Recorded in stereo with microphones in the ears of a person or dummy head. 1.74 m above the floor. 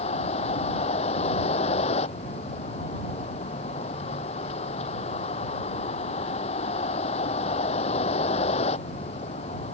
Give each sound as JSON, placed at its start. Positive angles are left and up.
{"t": 0.0, "sound": "a vehicle", "side_deg": 35}